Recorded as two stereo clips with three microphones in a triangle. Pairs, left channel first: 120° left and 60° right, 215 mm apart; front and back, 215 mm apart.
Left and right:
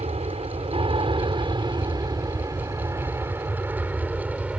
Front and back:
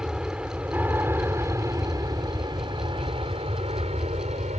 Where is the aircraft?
95° right; by 4.6 s 145° right.